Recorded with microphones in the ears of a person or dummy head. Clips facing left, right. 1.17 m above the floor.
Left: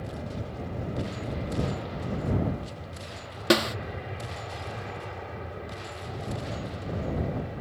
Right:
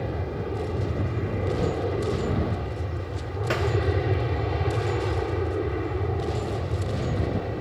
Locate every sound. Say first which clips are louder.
0.0 s an aircraft: right 6 dB; 70° right (ahead or behind); by 7.6 s 65° right (ahead or behind)
3.5 s a snare drum: left 4 dB; 50° left (ahead or behind)